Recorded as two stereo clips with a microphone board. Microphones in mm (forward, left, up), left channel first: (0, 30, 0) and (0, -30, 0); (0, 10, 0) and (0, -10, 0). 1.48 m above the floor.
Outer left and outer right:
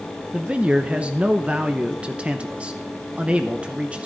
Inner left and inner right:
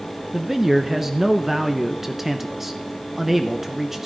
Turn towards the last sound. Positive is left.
turn(degrees=-20)  # may be behind; listen again after turning